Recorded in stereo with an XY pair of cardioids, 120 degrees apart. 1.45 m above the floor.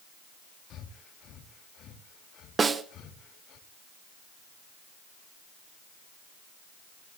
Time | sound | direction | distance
0.7 | breathing | 65° left | 2.5 m
2.6 | a snare drum | 30° right | 1.2 m